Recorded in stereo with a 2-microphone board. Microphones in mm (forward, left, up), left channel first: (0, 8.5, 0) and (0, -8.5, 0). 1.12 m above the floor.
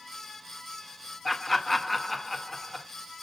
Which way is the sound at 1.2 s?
10° left (ahead or behind).